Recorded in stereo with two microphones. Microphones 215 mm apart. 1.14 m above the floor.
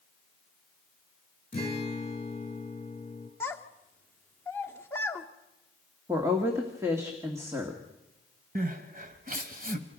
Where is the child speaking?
10° left (ahead or behind), 1.4 m.